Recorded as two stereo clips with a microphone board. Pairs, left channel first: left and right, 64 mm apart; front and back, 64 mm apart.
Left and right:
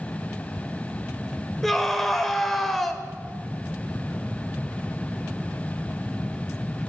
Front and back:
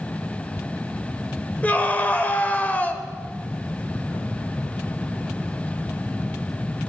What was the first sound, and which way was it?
A scream, 10° left.